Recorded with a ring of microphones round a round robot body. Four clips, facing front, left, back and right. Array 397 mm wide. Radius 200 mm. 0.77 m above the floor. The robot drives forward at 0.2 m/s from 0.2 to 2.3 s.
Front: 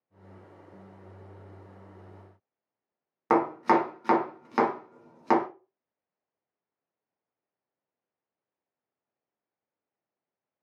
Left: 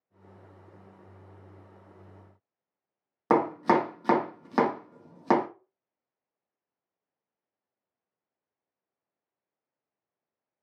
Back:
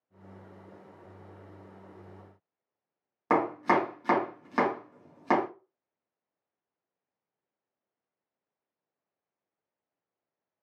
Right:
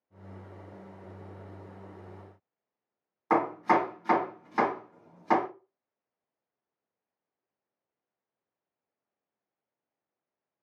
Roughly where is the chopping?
Left.